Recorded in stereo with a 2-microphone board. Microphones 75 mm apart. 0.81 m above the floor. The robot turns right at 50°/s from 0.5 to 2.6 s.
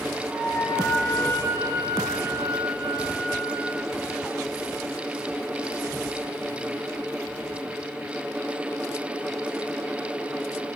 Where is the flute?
170° left, 5 m; by 3.7 s 85° right, 5 m.